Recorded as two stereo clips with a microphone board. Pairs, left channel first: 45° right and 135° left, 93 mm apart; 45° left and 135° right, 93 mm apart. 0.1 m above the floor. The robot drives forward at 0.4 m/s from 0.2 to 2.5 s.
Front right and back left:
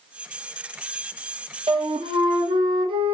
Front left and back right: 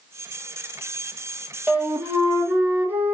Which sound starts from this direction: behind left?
A flute, at 1.7 s.